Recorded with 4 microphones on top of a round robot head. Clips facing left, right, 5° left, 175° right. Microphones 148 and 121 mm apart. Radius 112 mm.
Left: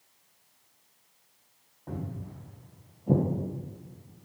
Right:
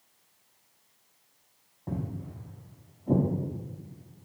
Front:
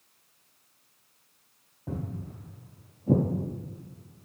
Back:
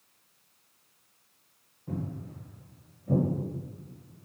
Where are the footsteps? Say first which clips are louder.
Right 2 dB, even; 25° right, 1.2 m; by 4.2 s 105° left, 0.8 m.